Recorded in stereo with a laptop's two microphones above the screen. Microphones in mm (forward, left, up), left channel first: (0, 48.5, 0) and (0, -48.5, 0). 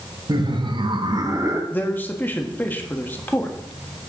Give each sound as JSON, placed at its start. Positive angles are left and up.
{"t": 0.3, "sound": "laughter", "side_deg": -50, "distance_m": 1.2}
{"t": 1.7, "sound": "a man speaking", "side_deg": 20, "distance_m": 1.3}